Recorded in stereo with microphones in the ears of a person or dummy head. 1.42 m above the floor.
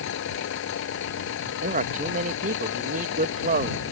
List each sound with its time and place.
0.0 s an engine running: 65° left (ahead or behind)
1.6 s a man speaking: 40° right (ahead or behind)